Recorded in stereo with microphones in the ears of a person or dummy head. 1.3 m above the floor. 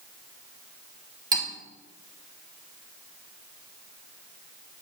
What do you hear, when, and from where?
1.3 s cutlery clinking: 25° right (ahead or behind), 2 m